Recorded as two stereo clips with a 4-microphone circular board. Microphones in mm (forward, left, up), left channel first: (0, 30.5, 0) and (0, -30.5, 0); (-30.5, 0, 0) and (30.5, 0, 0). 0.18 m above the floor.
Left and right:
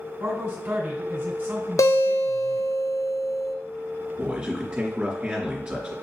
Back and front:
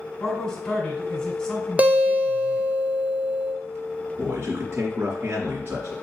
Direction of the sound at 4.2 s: 20° right.